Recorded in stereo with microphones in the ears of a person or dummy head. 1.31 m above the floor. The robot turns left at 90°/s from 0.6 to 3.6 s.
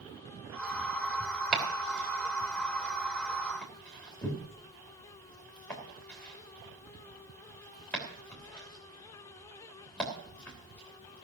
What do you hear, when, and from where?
1.5 s chopping: 5° right (ahead or behind), 3 m; by 11.2 s 10° left (ahead or behind), 3 m